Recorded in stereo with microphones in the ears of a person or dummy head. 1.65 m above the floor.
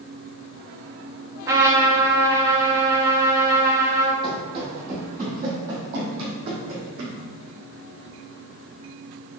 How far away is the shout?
I don't hear a shout.